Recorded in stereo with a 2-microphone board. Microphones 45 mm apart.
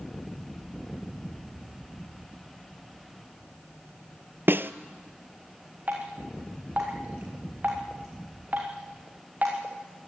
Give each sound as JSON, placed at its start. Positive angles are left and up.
{"t": 4.5, "sound": "a snare drum", "side_deg": -50, "distance_m": 0.8}
{"t": 5.9, "sound": "dripping", "side_deg": -40, "distance_m": 5.5}